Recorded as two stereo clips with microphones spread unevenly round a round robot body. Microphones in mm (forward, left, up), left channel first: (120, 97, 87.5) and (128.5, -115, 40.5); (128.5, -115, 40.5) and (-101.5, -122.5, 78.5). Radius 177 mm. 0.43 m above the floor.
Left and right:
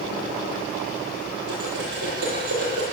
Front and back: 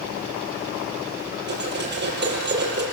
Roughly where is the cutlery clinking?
Behind right.